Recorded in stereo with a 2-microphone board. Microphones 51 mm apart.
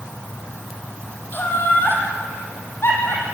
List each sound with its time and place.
1.3 s laughter: 40° left (ahead or behind), 5.5 m; by 3.2 s 50° left (ahead or behind), 6.5 m